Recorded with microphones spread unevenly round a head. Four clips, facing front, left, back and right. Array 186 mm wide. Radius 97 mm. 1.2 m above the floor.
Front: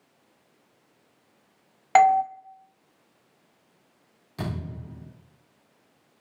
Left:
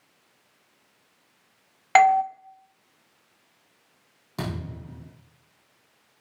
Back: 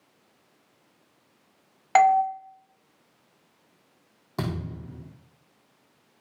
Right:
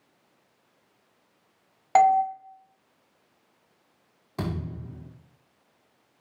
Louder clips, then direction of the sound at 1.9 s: Left 1 dB, front 1 dB; 5° left.